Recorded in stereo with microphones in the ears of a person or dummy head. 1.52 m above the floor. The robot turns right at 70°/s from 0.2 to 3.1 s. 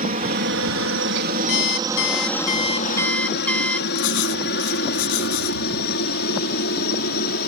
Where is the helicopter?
40° right (ahead or behind); by 7.5 s 50° left (ahead or behind).